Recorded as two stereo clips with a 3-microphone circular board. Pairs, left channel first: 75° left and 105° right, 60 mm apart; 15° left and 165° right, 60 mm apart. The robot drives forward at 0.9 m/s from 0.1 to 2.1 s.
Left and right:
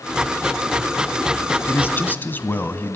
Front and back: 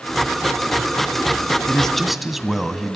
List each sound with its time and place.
1.7 s a man speaking: 85° left, 1.4 m; by 3.0 s 110° left, 1.4 m